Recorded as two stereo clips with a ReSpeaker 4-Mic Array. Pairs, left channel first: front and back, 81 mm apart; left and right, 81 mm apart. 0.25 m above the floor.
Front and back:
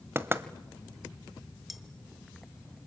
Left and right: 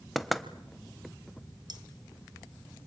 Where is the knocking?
Straight behind, 1.1 m.